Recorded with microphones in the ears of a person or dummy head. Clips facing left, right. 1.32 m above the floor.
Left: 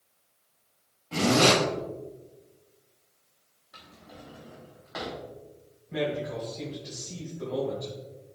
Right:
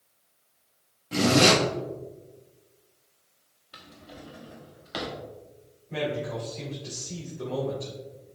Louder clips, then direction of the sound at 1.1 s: Right 1 dB; 20° right (ahead or behind).